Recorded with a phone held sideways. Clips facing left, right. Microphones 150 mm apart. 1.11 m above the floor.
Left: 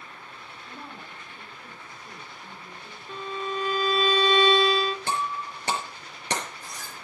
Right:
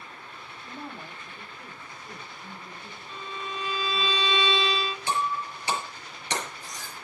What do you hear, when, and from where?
0.7 s a woman speaking: 15° right (ahead or behind), 3 m
3.1 s a violin: 50° left (ahead or behind), 0.8 m
5.1 s breaking glass: 50° left (ahead or behind), 5.5 m